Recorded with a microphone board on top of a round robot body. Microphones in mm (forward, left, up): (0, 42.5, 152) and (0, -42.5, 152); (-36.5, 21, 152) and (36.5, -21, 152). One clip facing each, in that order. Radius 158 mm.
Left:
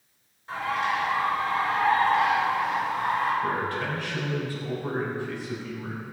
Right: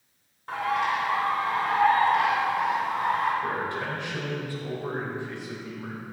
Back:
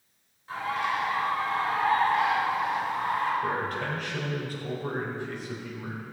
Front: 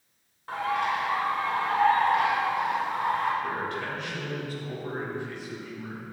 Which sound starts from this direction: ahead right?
A bird, at 0.5 s.